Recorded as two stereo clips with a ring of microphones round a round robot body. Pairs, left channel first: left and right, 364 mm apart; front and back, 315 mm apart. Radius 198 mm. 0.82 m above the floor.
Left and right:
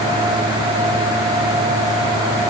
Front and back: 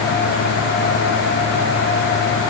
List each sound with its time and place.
Only background noise.